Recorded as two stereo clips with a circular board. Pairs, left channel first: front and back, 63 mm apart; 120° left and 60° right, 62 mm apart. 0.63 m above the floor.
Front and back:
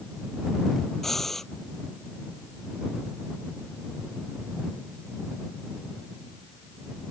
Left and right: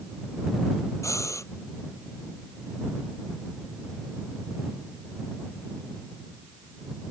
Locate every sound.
1.0 s breathing: 85° left